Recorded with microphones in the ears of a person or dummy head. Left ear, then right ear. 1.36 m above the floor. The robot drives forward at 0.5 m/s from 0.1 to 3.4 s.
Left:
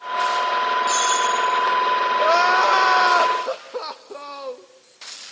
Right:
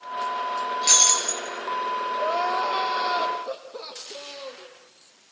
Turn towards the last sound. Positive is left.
turn(degrees=50)  # may be behind; listen again after turning